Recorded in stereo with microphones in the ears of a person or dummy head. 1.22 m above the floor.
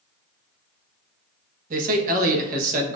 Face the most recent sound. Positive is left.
turn(degrees=-50)  # may be behind; listen again after turning